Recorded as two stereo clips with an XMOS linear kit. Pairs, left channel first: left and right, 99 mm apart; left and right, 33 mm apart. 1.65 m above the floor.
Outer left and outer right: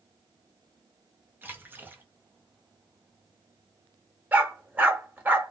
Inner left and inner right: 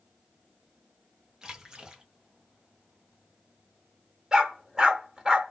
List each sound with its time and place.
1.4 s a splash: 20° right (ahead or behind), 0.8 m
4.3 s a dog barking: 20° right (ahead or behind), 1.4 m